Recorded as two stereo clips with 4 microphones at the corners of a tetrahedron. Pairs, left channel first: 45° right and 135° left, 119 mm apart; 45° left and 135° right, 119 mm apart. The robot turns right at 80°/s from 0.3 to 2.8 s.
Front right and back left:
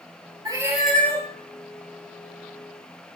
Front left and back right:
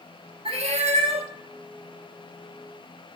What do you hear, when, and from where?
0.5 s a cat meowing: 170° right, 0.9 m; by 1.3 s 105° right, 0.9 m